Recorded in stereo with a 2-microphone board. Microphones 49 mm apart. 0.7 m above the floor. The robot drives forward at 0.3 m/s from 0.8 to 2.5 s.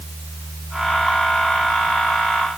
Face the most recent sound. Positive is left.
No sound to turn to.